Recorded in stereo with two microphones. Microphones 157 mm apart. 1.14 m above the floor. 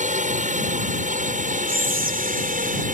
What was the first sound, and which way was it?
A drone, 55° right (ahead or behind).